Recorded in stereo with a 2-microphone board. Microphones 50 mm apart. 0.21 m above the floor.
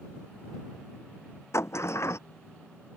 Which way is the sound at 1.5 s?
65° left (ahead or behind).